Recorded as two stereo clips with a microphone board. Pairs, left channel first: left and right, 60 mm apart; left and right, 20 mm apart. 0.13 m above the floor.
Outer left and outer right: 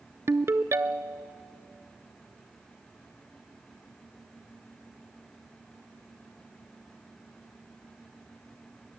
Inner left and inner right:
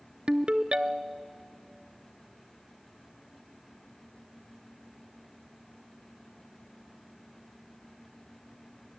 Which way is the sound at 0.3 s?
50° right (ahead or behind).